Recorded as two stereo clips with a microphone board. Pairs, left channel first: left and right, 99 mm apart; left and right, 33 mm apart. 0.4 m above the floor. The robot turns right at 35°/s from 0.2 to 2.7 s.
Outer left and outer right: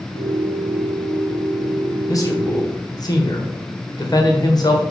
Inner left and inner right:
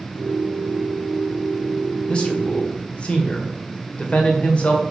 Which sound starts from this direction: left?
A man speaking, at 2.1 s.